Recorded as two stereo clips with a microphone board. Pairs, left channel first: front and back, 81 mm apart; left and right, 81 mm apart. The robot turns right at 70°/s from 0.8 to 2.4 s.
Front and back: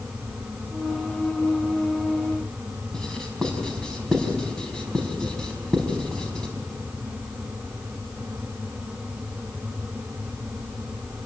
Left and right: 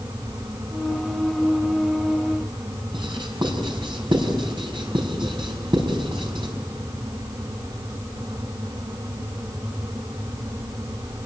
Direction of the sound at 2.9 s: 80° right.